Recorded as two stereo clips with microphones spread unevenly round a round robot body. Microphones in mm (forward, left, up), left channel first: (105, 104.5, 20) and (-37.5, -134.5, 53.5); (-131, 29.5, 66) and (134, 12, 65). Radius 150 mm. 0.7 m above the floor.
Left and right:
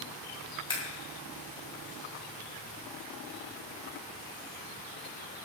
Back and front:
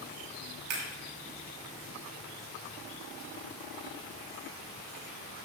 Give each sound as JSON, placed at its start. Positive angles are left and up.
{"t": 0.7, "sound": "scissors", "azimuth_deg": -15, "distance_m": 7.0}